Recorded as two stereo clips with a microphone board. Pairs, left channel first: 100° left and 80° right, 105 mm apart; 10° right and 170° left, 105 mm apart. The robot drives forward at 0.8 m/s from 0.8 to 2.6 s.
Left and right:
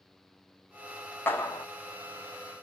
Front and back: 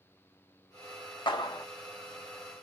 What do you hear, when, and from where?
1.3 s a clap: 30° left, 1.1 m; by 1.7 s 40° left, 0.8 m